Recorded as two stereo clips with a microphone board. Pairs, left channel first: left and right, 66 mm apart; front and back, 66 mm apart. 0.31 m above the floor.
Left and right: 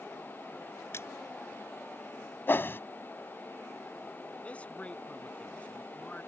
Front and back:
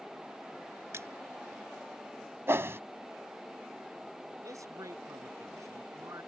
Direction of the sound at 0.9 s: 135° left.